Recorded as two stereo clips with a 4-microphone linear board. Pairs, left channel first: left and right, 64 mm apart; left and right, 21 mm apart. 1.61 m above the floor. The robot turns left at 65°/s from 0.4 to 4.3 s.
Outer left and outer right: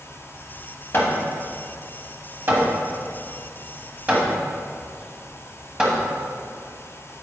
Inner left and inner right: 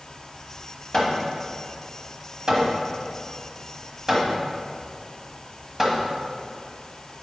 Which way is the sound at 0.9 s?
45° left (ahead or behind).